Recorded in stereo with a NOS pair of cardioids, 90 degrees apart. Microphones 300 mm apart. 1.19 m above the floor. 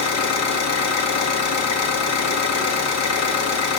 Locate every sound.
0.0 s an engine running: 55° left, 1.9 m